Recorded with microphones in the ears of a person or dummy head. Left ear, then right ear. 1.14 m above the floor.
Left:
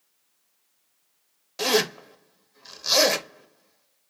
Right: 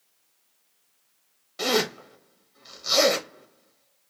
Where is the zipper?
15° left (ahead or behind), 0.8 m.